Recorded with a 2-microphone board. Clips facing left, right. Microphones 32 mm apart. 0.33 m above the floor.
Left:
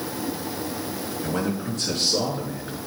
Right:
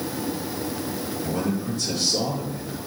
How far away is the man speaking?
About 5 m.